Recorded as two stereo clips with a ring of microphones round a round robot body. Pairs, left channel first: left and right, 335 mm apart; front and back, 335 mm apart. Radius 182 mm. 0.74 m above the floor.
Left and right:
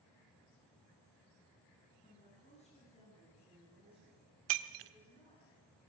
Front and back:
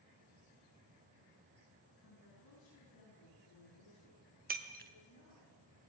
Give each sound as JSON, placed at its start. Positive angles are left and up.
{"t": 2.0, "sound": "a woman speaking", "azimuth_deg": 20, "distance_m": 10.0}
{"t": 4.5, "sound": "breaking glass", "azimuth_deg": -110, "distance_m": 1.1}